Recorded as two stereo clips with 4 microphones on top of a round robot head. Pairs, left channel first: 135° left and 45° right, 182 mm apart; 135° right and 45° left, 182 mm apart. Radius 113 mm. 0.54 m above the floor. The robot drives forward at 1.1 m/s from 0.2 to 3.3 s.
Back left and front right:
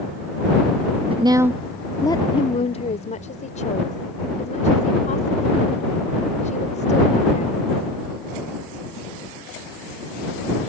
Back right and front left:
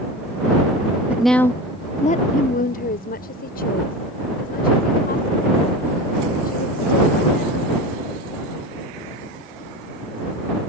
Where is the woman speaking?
30° right; by 7.9 s 175° right.